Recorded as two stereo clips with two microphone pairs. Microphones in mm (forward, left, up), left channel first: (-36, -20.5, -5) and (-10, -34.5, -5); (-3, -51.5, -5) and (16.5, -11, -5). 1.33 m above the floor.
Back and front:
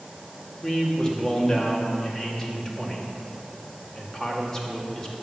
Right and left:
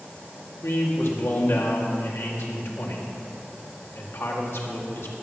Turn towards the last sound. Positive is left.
turn(degrees=-135)